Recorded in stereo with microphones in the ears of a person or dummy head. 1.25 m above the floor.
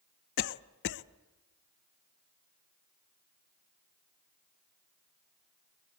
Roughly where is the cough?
Left.